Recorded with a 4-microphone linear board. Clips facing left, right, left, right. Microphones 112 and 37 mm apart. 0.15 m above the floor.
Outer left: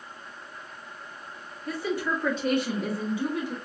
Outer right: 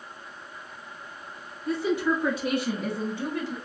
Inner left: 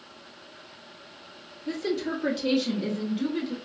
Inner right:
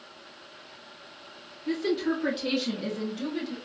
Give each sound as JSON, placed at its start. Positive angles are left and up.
{"t": 1.7, "sound": "a woman speaking", "side_deg": -25, "distance_m": 1.3}